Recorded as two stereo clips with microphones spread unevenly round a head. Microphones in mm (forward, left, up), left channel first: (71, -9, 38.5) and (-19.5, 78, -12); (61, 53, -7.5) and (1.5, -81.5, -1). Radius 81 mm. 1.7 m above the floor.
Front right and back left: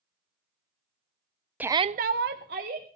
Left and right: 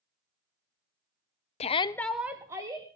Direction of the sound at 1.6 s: 40° left.